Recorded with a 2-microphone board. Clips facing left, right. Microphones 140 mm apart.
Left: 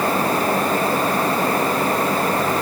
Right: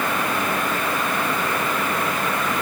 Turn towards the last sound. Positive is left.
No sound to turn to.